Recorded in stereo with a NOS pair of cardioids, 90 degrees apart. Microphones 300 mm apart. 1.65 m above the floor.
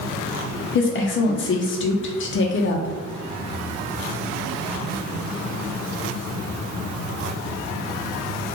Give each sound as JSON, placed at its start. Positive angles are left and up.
{"t": 0.8, "sound": "a woman speaking", "azimuth_deg": 40, "distance_m": 0.8}